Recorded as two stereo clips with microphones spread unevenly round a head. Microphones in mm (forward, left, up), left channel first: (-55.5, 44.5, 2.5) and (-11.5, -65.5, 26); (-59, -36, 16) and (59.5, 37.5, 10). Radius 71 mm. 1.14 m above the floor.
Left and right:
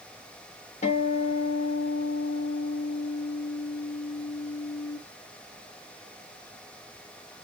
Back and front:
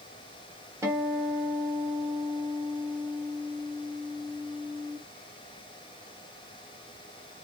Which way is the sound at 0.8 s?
100° left.